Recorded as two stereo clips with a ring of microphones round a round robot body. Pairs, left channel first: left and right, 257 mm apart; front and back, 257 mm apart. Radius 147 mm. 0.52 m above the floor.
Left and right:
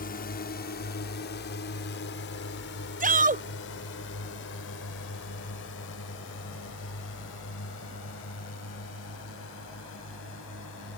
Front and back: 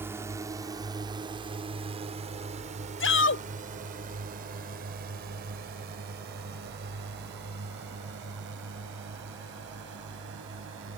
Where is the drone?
105° left; by 11.0 s 135° left.